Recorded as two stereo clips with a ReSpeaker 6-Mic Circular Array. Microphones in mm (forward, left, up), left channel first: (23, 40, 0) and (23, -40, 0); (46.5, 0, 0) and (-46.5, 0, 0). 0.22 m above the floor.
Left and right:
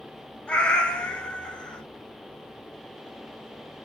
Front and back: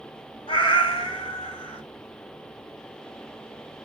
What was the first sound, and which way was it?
A cat meowing, 15° left.